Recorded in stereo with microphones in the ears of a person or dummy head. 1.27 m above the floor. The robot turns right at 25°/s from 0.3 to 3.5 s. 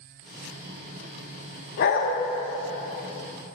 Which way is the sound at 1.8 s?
55° left (ahead or behind).